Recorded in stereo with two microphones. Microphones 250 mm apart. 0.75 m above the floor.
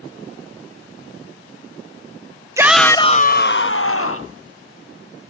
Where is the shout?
10° right (ahead or behind), 0.6 m; by 4.4 s 60° left (ahead or behind), 1.2 m.